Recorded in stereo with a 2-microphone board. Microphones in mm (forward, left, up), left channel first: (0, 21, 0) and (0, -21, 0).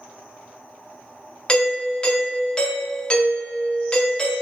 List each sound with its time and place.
1.5 s a doorbell: 20° left (ahead or behind), 0.8 m